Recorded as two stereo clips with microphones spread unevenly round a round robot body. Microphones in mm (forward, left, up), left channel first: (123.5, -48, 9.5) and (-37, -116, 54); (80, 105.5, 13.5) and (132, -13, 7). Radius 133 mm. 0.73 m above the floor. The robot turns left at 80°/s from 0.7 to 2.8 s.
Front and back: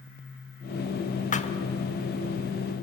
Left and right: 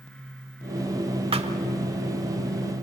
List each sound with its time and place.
1.3 s a thud: 20° right, 1.2 m; by 1.5 s 40° right, 1.2 m